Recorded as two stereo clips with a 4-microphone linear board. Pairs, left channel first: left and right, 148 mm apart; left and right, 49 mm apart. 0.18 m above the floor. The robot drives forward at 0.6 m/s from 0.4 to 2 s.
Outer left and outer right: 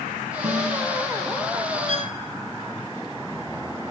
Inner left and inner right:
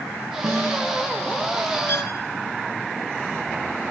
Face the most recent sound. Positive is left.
turn(degrees=55)  # may be behind; listen again after turning